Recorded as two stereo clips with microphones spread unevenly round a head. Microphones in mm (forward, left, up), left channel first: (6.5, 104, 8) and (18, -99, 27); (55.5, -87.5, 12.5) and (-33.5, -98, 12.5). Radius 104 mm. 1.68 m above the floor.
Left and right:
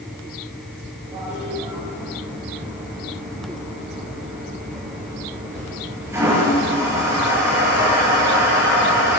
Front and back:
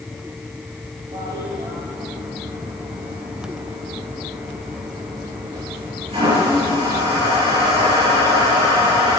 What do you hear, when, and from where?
1.1 s a toilet flushing: 165° right, 9 m